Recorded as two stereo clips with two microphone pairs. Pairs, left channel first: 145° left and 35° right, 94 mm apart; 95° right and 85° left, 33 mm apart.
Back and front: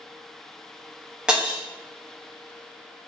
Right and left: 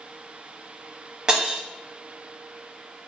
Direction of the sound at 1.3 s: 45° left.